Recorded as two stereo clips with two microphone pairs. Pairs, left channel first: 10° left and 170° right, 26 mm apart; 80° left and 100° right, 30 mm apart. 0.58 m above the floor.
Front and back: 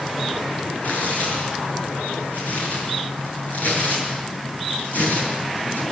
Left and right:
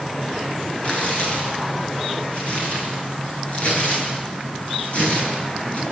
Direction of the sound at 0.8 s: 35° left.